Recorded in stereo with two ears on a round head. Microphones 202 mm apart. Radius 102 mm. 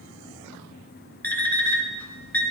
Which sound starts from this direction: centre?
An alarm clock, at 1.2 s.